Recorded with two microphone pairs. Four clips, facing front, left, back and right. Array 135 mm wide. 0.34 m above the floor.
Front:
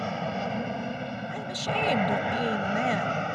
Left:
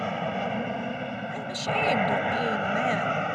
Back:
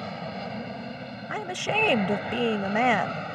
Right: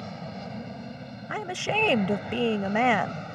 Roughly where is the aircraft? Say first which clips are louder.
Left 9 dB, front 4 dB; ahead left.